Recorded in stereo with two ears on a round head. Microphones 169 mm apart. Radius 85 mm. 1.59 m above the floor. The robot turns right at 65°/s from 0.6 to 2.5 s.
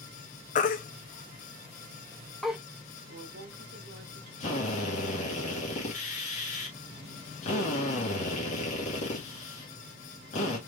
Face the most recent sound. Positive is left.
turn(degrees=40)  # may be behind; listen again after turning